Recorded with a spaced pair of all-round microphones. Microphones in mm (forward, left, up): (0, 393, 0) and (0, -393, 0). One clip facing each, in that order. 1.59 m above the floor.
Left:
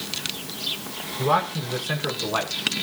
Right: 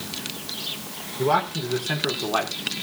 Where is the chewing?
No chewing in this recording.